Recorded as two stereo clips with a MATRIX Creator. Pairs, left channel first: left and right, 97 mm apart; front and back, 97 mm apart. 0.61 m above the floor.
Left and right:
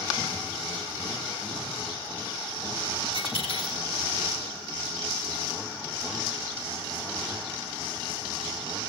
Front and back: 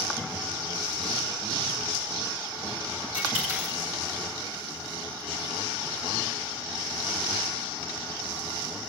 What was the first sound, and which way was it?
A dropped coin, 75° left.